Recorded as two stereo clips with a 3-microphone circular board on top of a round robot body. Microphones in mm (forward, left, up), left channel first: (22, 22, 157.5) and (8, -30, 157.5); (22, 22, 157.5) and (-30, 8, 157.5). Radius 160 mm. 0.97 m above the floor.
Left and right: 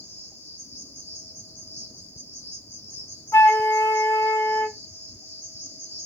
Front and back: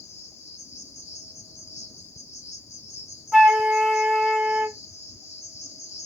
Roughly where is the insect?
Ahead left.